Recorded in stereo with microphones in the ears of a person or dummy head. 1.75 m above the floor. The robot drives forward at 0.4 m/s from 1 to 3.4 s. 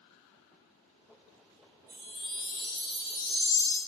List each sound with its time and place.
1.9 s a chime: 10° right (ahead or behind), 1.3 m; by 3.8 s 5° right (ahead or behind), 1.8 m